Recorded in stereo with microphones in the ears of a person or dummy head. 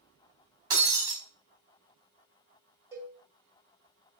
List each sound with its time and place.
0.7 s breaking glass: 15° right (ahead or behind), 1.1 m
2.9 s a cowbell: 10° right (ahead or behind), 1.9 m